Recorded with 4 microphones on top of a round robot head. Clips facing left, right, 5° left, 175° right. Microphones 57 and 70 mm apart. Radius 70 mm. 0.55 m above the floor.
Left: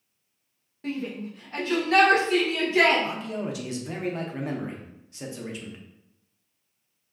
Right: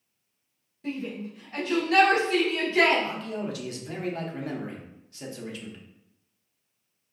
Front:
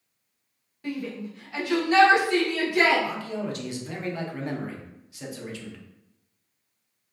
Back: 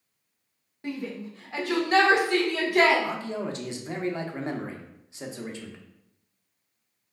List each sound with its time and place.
0.8 s a shout: 125° left, 1.8 m; by 3.0 s 170° left, 1.6 m
3.0 s a man speaking: 145° left, 0.9 m